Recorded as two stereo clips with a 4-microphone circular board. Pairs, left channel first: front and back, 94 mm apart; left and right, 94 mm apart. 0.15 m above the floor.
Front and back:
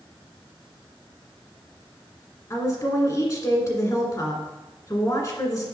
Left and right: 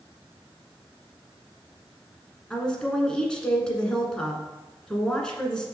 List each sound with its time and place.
2.5 s a woman speaking: 15° left, 1.4 m